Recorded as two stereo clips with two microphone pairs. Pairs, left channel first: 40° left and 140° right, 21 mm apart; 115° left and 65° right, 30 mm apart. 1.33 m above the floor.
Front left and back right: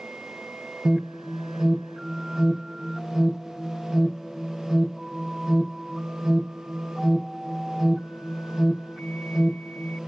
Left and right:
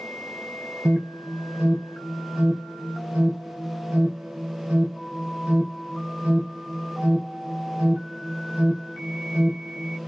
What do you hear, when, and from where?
0.8 s an alarm: 65° right, 1.0 m